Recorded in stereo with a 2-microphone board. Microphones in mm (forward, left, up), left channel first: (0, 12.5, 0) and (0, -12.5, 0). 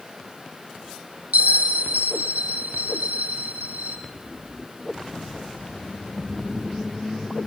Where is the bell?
75° right (ahead or behind), 3.5 m.